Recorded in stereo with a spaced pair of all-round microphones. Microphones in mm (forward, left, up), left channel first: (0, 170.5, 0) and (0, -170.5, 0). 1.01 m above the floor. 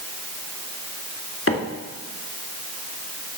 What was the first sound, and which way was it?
A microwave, 40° left (ahead or behind).